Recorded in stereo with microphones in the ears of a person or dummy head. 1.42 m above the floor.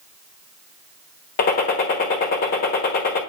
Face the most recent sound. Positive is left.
turn(degrees=45)  # may be behind; listen again after turning